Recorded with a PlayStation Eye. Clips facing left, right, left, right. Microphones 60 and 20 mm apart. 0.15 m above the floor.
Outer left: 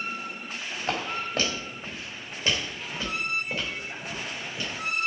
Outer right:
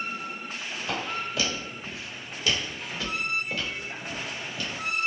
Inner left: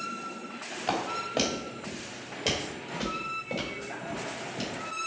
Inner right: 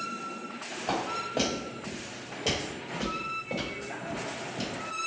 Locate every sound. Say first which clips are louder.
0.9 s footsteps: outer left 2 dB, inner left 1 dB; 55° left (ahead or behind), 1.8 m; by 4.8 s 10° left (ahead or behind), 3 m